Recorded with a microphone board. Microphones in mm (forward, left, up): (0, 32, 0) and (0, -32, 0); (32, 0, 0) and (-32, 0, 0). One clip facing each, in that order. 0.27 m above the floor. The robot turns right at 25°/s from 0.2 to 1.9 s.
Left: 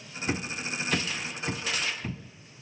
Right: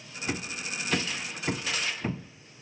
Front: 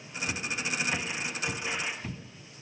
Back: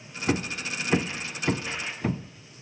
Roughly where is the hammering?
Behind.